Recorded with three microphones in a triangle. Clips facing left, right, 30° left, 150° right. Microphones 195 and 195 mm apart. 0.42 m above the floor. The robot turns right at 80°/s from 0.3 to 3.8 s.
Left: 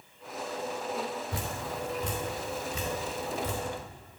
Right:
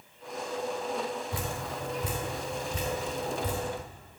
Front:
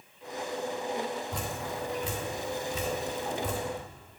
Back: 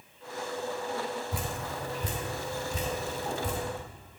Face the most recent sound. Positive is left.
turn(degrees=-35)